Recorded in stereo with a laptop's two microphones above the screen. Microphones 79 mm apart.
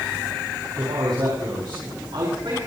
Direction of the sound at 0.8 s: 85° right.